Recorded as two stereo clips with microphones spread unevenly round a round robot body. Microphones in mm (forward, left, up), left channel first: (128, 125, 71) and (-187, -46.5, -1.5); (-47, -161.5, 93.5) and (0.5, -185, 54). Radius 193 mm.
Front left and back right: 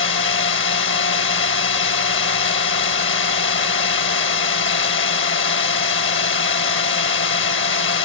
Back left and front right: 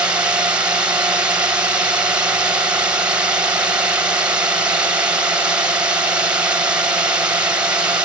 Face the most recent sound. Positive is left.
turn(degrees=-35)